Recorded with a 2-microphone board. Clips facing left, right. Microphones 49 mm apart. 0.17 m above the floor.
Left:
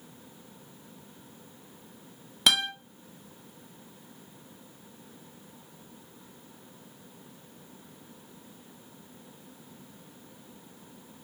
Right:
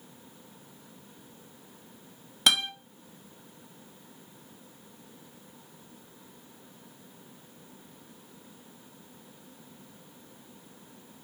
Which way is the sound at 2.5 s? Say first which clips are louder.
Even; centre (ahead or behind).